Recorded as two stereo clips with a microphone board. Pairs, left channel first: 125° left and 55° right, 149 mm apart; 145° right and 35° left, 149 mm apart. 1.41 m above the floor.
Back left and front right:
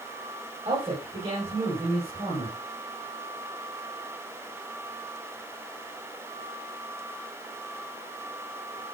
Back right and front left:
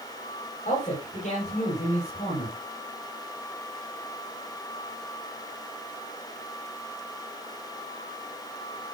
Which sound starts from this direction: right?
A man speaking, at 0.7 s.